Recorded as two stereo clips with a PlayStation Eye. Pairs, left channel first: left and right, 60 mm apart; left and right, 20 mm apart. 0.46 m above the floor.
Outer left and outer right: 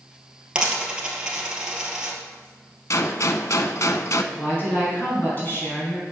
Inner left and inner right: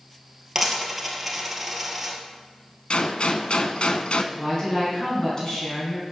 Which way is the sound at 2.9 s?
65° left (ahead or behind).